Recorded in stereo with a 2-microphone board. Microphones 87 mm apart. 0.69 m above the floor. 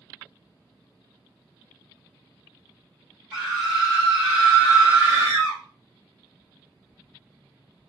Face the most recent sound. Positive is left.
turn(degrees=-40)  # may be behind; listen again after turning